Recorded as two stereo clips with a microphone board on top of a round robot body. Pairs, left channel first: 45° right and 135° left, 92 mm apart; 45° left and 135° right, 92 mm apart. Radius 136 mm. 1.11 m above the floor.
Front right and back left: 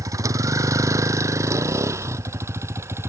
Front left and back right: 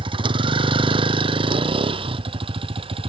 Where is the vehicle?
170° right; by 3.1 s 160° right.